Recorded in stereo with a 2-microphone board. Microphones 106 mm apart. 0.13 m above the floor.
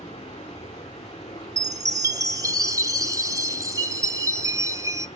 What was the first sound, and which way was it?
Running water, 75° left (ahead or behind).